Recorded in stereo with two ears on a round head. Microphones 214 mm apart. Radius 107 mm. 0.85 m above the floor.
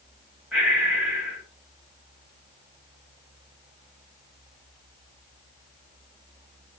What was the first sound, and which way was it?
Breathing, 5° right (ahead or behind).